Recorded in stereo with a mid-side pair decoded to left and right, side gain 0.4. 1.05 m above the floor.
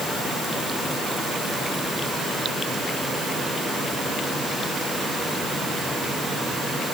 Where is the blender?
No blender in this recording.